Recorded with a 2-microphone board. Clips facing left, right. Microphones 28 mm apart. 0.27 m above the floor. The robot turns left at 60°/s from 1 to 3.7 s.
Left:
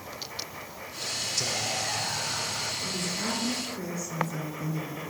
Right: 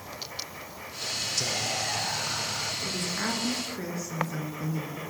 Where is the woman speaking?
90° right, 3.5 m; by 5.0 s 145° right, 3.5 m.